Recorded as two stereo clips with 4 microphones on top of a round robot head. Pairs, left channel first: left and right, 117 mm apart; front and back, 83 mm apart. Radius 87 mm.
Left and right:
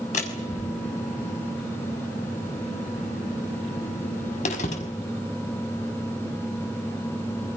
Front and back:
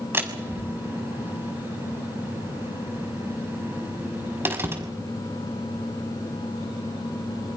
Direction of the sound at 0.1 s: 120° left.